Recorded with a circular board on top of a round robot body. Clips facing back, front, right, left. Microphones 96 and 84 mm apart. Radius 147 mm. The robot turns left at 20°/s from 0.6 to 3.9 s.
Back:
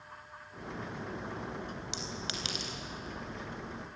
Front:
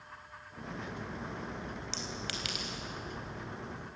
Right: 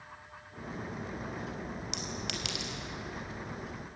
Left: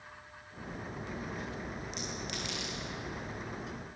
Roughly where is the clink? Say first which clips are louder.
Even, right 1 dB; right.